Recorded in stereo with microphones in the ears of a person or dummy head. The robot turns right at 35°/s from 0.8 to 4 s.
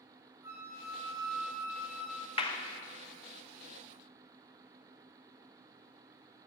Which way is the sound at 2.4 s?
25° left (ahead or behind).